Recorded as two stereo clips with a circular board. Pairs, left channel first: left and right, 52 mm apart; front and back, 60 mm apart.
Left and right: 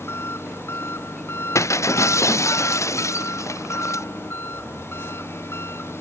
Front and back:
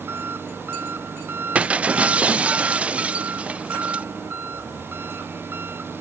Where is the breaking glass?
110° left.